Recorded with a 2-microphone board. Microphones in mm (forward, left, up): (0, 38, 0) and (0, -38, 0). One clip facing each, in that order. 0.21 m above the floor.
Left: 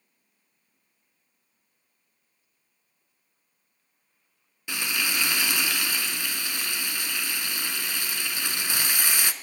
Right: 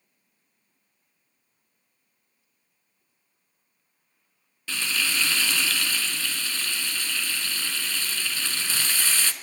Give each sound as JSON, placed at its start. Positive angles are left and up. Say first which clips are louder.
{"t": 4.7, "sound": "frying", "louder": "right 1 dB", "side_deg": 15, "distance_m": 0.5}